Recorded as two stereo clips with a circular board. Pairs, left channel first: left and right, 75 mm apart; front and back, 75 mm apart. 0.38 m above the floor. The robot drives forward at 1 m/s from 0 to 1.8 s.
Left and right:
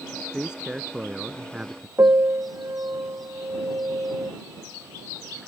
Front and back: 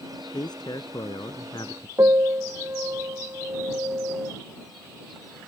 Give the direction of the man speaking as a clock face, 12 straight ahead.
12 o'clock.